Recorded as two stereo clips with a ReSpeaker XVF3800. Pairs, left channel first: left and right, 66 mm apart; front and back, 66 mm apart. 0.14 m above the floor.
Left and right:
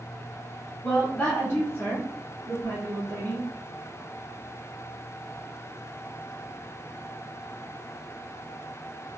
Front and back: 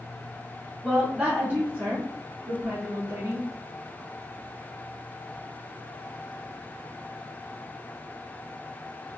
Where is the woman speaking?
125° left, 1.1 m; by 3.5 s 145° left, 2 m.